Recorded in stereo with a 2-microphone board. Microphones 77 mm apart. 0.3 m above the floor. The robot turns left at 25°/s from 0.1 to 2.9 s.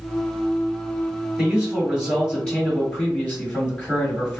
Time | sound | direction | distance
1.4 | a man speaking | 160° right | 1.5 m